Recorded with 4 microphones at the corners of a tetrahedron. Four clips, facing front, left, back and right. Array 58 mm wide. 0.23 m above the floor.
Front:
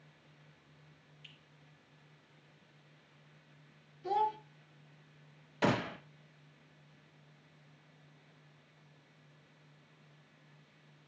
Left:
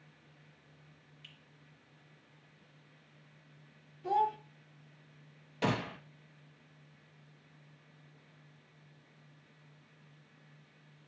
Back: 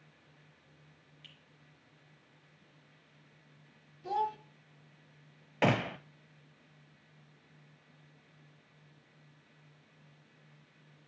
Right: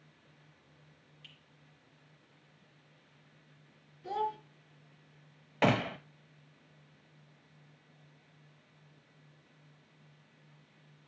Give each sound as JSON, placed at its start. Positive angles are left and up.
{"t": 1.2, "sound": "a finger snap", "azimuth_deg": 150, "distance_m": 3.5}
{"t": 4.0, "sound": "a child speaking", "azimuth_deg": 100, "distance_m": 0.8}
{"t": 5.6, "sound": "a gunshot", "azimuth_deg": -135, "distance_m": 0.8}